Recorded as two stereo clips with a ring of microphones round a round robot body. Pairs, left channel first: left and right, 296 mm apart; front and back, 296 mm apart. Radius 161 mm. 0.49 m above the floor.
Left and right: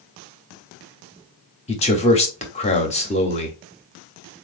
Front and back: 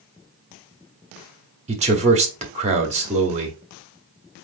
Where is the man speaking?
135° left, 0.8 m.